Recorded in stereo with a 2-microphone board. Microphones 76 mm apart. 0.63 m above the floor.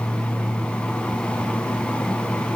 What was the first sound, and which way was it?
Only background noise.